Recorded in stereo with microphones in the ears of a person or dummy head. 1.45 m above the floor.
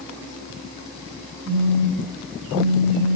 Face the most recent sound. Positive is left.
turn(degrees=10)  # may be behind; listen again after turning